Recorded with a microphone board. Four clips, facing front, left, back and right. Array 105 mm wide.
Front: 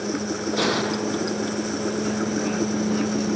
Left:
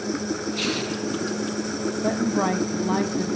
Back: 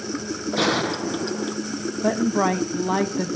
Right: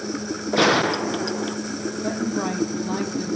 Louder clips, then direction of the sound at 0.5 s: Right 8 dB, back 2 dB; 95° right.